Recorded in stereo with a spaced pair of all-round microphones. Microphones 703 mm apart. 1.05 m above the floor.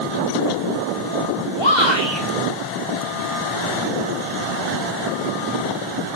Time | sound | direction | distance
1.6 | a shout | 40° left (ahead or behind) | 4.5 m